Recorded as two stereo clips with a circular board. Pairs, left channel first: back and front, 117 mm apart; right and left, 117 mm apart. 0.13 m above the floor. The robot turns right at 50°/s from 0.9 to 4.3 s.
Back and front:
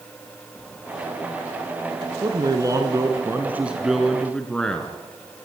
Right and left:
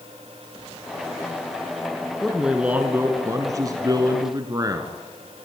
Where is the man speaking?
5° right, 1.7 m; by 5.0 s 100° left, 1.7 m.